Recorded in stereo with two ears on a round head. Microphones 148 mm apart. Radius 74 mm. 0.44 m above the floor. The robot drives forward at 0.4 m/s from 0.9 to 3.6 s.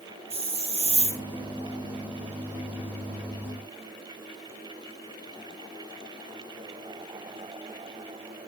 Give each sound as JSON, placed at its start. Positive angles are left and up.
{"t": 0.3, "sound": "a hiss", "side_deg": -35, "distance_m": 2.5}